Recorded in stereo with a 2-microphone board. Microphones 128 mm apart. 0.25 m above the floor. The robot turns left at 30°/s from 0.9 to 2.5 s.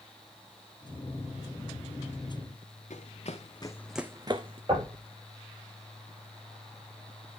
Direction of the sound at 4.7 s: 45° right (ahead or behind).